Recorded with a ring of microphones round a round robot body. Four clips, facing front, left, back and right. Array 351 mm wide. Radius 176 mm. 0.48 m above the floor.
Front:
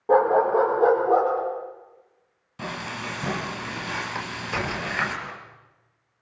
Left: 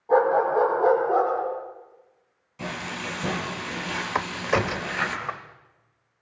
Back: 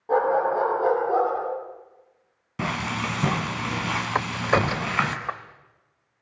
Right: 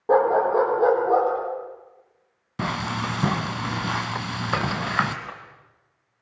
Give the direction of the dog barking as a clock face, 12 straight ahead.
2 o'clock.